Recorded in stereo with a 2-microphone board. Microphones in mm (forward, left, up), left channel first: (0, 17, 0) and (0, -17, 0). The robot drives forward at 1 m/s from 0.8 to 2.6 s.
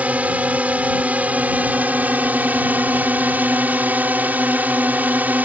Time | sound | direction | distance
0.0 | a drone | 45° right (ahead or behind) | ?